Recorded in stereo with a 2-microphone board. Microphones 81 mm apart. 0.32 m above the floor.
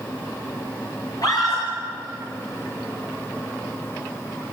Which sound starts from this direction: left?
A scream, at 1.2 s.